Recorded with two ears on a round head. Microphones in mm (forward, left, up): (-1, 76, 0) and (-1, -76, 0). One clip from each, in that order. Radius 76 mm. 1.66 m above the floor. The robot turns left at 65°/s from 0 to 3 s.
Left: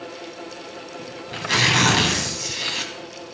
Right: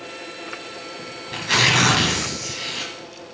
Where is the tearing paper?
125° right, 1.9 m; by 2.9 s 110° left, 1.9 m.